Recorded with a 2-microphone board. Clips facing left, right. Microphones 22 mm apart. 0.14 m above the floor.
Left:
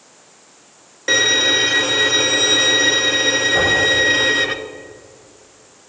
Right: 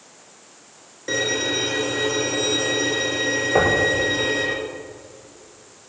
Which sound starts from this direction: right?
Knocking, at 3.5 s.